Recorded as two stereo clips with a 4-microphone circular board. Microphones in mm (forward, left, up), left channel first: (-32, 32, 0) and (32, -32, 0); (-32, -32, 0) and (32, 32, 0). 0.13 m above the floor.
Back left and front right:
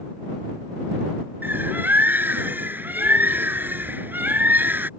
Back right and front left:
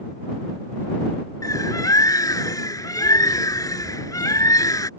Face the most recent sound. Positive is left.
turn(degrees=-105)